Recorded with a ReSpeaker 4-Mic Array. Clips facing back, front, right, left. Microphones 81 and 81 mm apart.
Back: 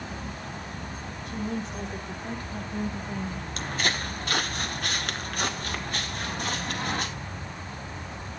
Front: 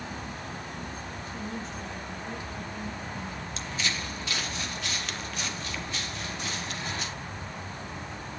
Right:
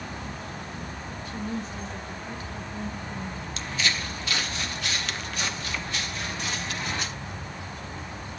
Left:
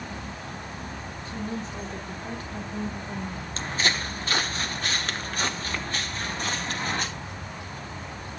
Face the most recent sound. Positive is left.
turn(degrees=140)